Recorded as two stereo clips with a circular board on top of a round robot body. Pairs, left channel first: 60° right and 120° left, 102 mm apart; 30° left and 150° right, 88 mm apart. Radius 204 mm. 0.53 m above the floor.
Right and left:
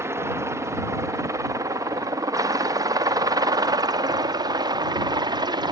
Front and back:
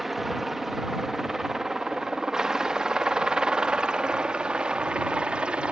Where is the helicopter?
125° left; by 5.7 s 135° left.